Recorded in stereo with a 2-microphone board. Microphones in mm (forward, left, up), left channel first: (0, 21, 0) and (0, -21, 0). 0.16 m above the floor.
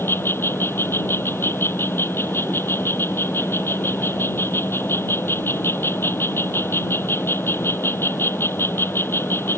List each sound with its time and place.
0.0 s an insect: 65° left (ahead or behind)